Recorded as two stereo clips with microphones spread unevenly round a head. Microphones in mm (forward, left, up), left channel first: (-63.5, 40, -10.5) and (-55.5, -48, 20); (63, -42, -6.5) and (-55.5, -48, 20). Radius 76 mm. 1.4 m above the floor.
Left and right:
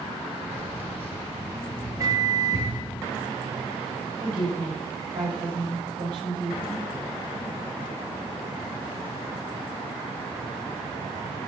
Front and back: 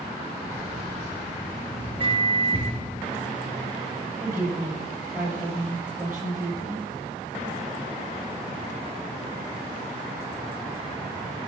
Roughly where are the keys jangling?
Behind right.